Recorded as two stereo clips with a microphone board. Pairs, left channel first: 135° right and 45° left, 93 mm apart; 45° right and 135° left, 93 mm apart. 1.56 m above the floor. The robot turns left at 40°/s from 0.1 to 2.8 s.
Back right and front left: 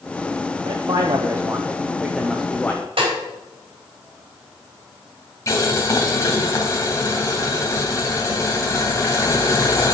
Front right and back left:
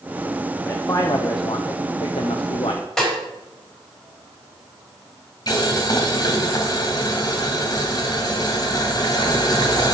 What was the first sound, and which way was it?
A man speaking, 20° left.